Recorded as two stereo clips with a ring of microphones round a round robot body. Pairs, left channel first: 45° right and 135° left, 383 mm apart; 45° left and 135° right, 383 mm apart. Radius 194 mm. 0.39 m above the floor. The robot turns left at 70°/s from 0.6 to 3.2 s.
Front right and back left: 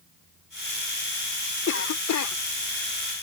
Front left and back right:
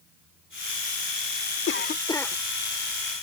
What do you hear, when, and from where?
1.7 s a cough: straight ahead; by 2.4 s 45° right